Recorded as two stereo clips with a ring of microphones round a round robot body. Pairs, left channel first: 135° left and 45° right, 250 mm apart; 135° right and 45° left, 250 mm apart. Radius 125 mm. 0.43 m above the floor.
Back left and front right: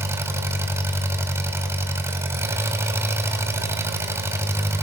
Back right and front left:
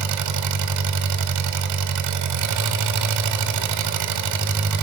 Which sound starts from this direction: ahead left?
An engine running, at 0.0 s.